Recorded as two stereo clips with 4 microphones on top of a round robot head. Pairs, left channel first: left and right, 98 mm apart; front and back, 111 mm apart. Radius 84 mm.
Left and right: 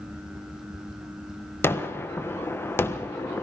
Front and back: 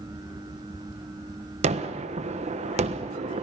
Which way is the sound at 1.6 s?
155° left.